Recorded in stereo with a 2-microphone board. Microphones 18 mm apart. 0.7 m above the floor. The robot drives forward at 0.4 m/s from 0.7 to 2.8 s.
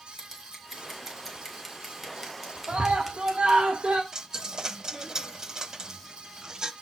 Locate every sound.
0.2 s scissors: 15° right (ahead or behind), 4.5 m; by 3.6 s 20° right (ahead or behind), 3.5 m
2.7 s a scream: 65° right (ahead or behind), 2.5 m
4.1 s a dropped coin: 35° right (ahead or behind), 0.9 m